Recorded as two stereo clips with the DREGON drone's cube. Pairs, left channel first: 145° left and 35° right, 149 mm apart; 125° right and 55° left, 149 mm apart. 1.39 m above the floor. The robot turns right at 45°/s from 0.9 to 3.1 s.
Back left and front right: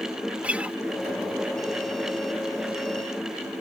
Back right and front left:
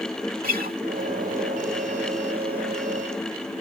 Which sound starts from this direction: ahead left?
A guitar, at 0.4 s.